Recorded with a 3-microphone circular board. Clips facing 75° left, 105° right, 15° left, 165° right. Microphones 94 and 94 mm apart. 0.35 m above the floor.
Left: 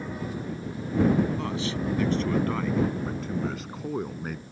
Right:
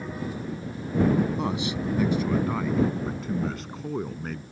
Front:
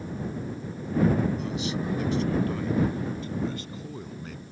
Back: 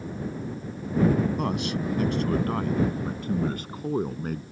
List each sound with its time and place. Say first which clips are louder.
1.4 s a man speaking: right 2 dB, back 3 dB; 175° right; by 4.4 s 155° left